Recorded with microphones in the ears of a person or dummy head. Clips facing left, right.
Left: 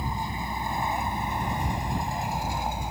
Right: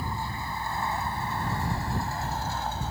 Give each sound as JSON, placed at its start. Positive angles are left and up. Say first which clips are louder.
{"t": 0.0, "sound": "a vehicle", "louder": "left 2 dB", "side_deg": 15}